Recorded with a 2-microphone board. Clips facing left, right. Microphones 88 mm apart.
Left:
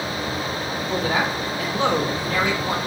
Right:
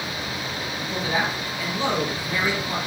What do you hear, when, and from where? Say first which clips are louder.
0.8 s a man speaking: left 3 dB; 70° left (ahead or behind), 2.5 m